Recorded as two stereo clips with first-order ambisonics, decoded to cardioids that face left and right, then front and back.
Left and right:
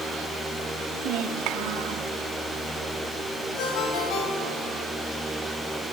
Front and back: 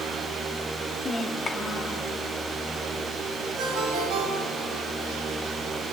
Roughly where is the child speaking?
Right.